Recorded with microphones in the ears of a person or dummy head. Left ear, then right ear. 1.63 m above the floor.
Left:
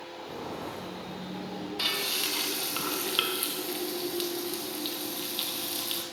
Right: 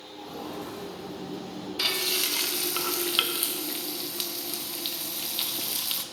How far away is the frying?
About 1.0 m.